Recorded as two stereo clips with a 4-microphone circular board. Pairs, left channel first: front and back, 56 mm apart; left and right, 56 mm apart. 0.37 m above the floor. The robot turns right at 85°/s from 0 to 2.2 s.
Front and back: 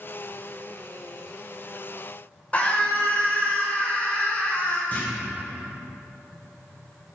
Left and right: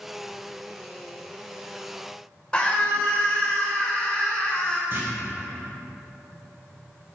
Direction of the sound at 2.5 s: 35° left.